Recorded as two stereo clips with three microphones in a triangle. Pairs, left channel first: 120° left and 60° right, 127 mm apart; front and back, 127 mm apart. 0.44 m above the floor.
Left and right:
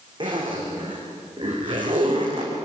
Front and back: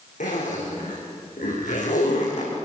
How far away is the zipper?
About 7.5 m.